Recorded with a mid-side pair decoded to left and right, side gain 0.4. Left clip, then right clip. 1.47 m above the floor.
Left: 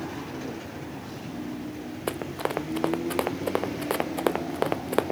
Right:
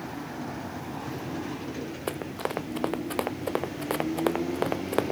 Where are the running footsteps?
15° left.